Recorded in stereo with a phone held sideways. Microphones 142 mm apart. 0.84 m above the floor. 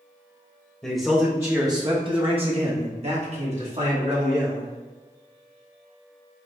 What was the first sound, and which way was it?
A man speaking, centre (ahead or behind).